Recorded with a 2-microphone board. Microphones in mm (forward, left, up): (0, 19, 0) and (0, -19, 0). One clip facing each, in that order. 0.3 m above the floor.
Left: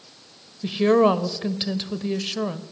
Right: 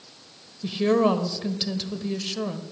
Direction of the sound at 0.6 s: 20° left (ahead or behind).